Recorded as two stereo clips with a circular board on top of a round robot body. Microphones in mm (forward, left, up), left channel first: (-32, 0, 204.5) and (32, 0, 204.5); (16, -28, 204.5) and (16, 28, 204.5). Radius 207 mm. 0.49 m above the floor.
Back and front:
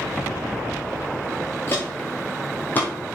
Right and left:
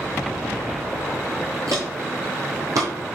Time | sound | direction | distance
1.7 | footsteps | 125° left | 0.5 m